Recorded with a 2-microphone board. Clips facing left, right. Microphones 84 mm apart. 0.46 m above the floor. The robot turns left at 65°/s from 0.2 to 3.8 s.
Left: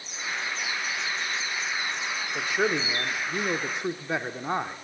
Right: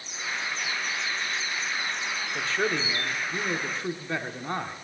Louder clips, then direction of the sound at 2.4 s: Left 2 dB; 10° left (ahead or behind).